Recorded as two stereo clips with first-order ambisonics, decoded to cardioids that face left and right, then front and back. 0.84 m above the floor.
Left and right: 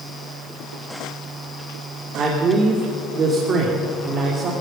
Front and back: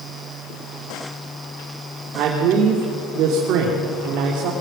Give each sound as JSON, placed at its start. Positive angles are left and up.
{"t": 2.1, "sound": "a man speaking", "azimuth_deg": -145, "distance_m": 2.5}